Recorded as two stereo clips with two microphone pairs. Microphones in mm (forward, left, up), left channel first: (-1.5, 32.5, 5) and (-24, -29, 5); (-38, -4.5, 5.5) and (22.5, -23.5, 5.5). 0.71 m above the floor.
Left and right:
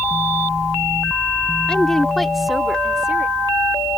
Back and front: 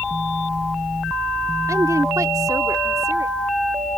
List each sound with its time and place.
1.7 s a woman speaking: 5° right; by 3.4 s 35° right